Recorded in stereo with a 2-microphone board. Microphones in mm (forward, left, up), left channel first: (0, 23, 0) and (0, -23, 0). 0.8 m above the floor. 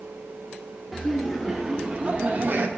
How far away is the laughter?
About 1.0 m.